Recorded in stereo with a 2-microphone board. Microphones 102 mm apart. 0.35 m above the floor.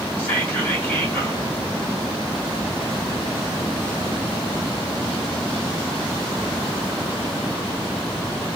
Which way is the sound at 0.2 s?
15° left (ahead or behind).